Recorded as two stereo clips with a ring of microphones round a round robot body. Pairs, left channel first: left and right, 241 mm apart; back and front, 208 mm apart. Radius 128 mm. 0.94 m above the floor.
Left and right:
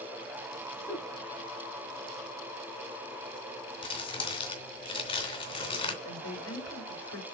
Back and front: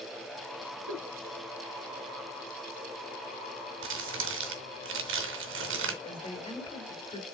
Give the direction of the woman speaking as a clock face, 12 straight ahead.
8 o'clock.